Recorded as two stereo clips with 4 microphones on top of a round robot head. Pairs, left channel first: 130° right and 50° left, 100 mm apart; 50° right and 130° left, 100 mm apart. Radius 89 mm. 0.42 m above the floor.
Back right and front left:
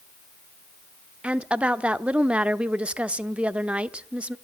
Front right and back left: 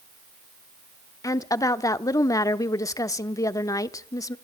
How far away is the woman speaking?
About 0.9 m.